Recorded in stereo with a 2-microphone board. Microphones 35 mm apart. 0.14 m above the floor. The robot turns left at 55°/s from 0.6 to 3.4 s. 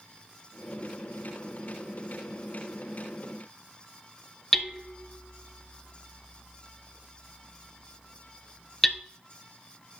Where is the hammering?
10° left (ahead or behind), 0.5 m.